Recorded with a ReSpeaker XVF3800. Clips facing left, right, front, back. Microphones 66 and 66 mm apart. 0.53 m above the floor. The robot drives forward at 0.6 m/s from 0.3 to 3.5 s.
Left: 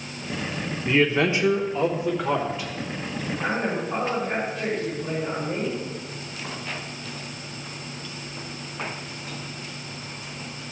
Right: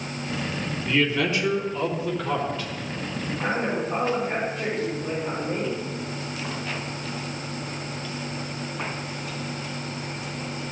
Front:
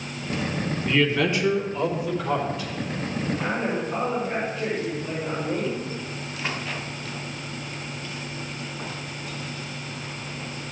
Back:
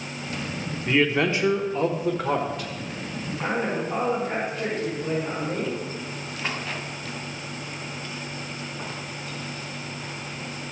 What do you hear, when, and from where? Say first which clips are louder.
0.9 s a man speaking: left 3 dB, back 1 dB; 115° left, 1.1 m; by 2.7 s 160° left, 1.7 m
3.4 s a man speaking: right 1 dB, back 4 dB; 165° right, 5 m